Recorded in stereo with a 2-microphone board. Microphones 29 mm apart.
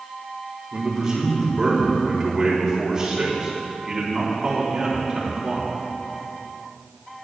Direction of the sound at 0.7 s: 20° right (ahead or behind).